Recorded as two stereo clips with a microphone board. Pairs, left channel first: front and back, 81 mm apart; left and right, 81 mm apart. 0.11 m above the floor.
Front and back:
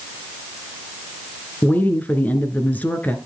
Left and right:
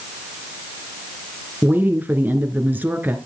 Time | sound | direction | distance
1.6 | a woman speaking | 50° right | 1.2 m